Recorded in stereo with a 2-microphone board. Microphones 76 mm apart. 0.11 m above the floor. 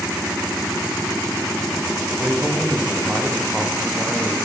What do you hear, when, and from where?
2.1 s a man speaking: 10° right (ahead or behind), 9.5 m; by 4.4 s centre (ahead or behind), 10.5 m